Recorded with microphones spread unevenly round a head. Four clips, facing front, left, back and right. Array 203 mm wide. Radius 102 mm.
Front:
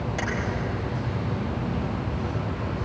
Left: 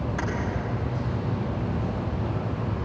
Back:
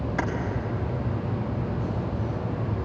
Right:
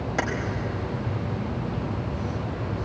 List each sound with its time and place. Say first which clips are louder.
0.2 s keys jangling: right 6 dB, back 4 dB; 95° right, 4 m